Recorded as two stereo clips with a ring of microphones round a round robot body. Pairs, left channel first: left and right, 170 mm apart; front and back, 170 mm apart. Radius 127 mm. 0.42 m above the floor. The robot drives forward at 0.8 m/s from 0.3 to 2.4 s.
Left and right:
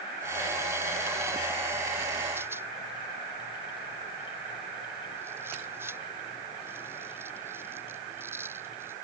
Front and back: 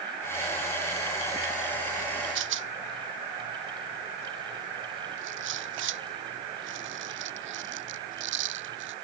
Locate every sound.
2.4 s a rattle: 170° right